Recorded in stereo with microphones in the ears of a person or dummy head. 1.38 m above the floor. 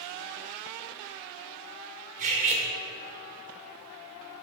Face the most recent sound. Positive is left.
turn(degrees=-40)  # may be behind; listen again after turning